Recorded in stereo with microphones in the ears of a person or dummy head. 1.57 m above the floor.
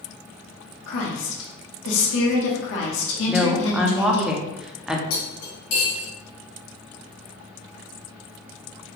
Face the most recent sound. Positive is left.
turn(degrees=50)  # may be behind; listen again after turning